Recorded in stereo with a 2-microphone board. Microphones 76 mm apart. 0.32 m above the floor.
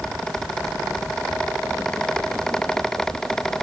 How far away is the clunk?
No clunk in this recording.